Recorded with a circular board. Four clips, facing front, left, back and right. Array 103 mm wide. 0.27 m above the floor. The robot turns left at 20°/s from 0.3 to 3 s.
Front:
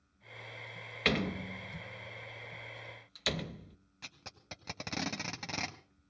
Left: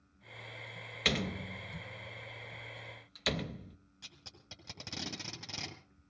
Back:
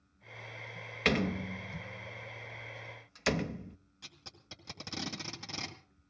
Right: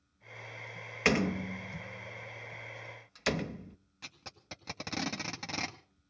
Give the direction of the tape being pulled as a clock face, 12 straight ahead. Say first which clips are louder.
Right 9 dB, front 6 dB; 1 o'clock.